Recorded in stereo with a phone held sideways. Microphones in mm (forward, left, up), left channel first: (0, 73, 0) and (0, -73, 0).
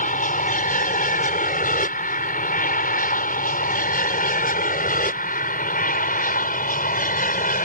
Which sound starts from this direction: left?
An aircraft, at 0.0 s.